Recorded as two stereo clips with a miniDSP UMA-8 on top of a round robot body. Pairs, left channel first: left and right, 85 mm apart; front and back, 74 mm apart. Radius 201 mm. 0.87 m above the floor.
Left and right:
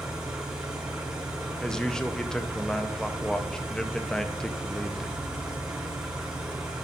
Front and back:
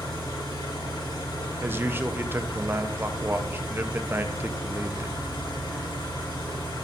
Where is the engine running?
10° right, 3.5 m.